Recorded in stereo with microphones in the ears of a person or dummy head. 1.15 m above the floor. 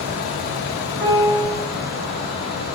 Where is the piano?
25° right (ahead or behind), 0.8 m.